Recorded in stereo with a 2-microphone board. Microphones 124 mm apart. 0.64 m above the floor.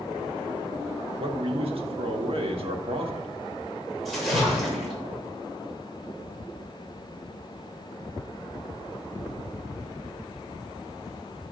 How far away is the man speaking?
About 1.1 m.